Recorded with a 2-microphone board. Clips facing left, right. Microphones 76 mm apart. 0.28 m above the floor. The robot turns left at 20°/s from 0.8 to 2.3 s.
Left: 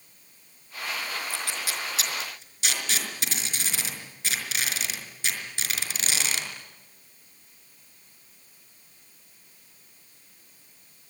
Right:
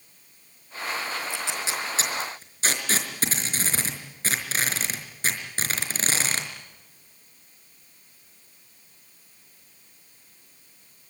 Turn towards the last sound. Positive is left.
turn(degrees=-35)  # may be behind; listen again after turning